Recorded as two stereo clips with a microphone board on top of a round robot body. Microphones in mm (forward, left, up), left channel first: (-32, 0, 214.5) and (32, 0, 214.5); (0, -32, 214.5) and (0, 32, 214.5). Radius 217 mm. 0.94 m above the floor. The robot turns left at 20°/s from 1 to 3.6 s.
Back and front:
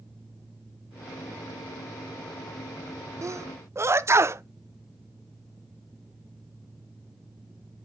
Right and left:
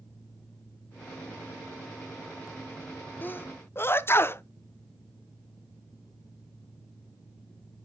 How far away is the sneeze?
About 0.5 m.